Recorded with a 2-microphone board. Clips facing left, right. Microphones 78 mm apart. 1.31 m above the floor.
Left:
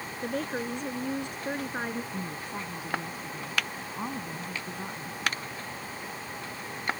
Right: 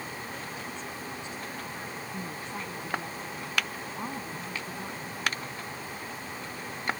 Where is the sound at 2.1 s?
10° left (ahead or behind).